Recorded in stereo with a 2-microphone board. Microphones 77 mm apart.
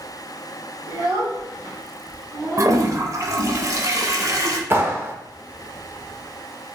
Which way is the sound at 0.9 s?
75° right (ahead or behind).